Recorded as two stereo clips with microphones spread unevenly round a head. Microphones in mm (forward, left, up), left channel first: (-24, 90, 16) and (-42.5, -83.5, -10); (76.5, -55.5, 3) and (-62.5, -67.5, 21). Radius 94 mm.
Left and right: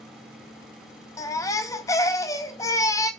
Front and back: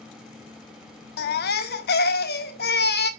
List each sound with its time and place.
1.2 s a baby crying: 10° left, 0.6 m